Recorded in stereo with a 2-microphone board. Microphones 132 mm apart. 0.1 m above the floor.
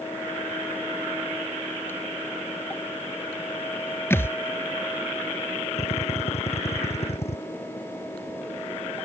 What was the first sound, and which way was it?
A thud, 20° left (ahead or behind).